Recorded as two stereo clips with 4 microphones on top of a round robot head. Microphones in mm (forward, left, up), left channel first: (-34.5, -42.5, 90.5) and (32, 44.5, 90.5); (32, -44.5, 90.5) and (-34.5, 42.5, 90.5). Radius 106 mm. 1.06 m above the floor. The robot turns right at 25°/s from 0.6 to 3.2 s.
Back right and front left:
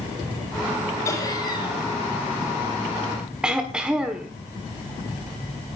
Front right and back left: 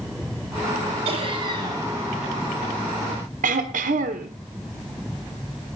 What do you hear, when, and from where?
1.1 s laughter: 170° left, 4 m; by 1.9 s 170° right, 4 m
3.4 s throat clearing: 135° left, 1.2 m